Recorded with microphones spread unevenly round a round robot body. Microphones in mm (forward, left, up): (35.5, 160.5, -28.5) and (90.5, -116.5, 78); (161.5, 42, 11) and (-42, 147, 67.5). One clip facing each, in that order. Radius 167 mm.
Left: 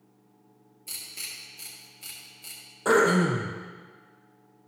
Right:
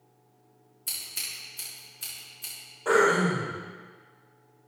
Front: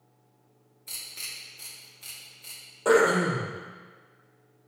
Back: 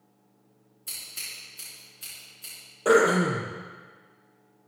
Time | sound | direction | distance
0.9 | scissors | 140° right | 5 m
2.9 | throat clearing | 80° left | 4 m